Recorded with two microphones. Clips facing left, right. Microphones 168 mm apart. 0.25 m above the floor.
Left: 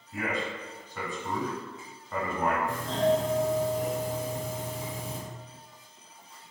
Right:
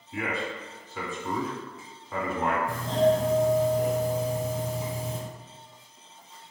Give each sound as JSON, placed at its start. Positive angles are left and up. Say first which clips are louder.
{"t": 0.1, "sound": "a man speaking", "louder": "right 1 dB", "side_deg": -5, "distance_m": 1.1}
{"t": 2.7, "sound": "a doorbell", "louder": "right 5 dB", "side_deg": -25, "distance_m": 1.4}